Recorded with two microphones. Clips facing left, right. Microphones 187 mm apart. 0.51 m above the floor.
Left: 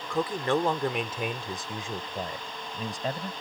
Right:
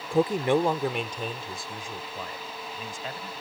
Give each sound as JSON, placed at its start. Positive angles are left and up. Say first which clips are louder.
{"t": 0.1, "sound": "a man speaking", "louder": "right 4 dB", "side_deg": -35}